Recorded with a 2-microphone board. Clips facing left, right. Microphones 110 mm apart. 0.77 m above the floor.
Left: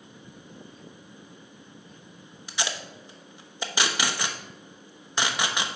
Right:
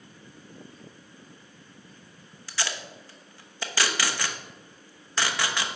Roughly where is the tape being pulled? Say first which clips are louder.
Left 1 dB; centre.